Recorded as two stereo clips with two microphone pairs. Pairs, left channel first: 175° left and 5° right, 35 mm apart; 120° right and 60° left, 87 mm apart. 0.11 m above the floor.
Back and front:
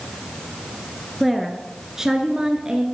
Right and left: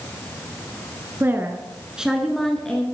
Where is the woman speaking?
85° left, 1.2 m; by 2.9 s 50° right, 1.3 m.